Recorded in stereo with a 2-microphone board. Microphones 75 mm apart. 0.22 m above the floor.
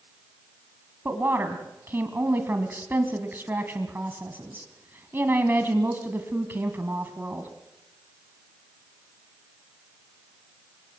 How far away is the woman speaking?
About 1.9 m.